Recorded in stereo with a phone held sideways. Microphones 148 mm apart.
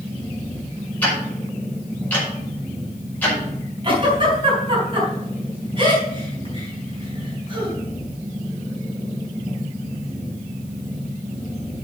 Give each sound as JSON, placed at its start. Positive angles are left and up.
{"t": 0.0, "sound": "a machine running", "side_deg": -15, "distance_m": 3.0}
{"t": 1.0, "sound": "ticking", "side_deg": 10, "distance_m": 5.0}
{"t": 3.8, "sound": "a giggle", "side_deg": -35, "distance_m": 5.0}